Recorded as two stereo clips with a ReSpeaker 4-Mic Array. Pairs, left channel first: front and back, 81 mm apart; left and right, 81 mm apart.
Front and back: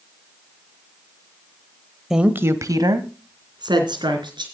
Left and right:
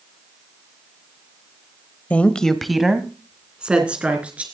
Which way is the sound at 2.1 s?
105° left.